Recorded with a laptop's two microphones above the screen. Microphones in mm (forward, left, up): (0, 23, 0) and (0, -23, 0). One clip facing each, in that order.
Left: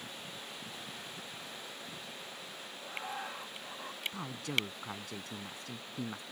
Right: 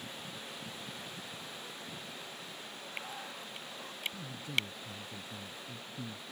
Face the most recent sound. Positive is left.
turn(degrees=85)